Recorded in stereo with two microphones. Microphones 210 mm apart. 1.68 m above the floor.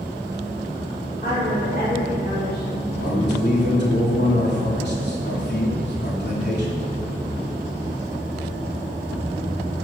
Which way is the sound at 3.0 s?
60° left (ahead or behind).